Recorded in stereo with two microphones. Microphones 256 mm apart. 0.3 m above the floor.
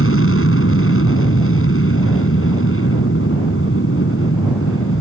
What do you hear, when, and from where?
0.0 s an aircraft: 60° left (ahead or behind)